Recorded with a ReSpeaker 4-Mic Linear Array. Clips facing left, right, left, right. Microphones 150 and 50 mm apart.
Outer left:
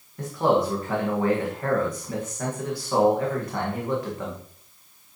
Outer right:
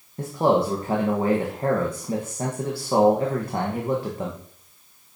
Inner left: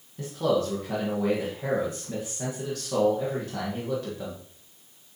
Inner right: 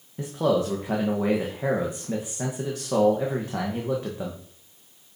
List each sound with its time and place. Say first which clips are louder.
0.2 s a man speaking: outer right 1 dB, inner right 2 dB; 30° right (ahead or behind), 1.2 m